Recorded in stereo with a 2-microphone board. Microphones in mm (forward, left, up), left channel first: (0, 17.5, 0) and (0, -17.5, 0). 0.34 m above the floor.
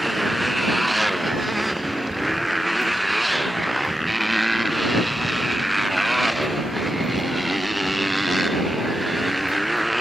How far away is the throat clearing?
No throat clearing in this recording.